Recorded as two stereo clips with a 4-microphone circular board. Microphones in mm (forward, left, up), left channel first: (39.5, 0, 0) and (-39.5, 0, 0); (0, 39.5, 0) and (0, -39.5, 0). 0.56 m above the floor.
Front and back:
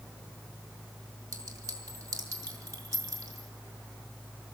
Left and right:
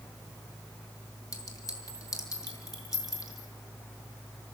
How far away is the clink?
About 5 m.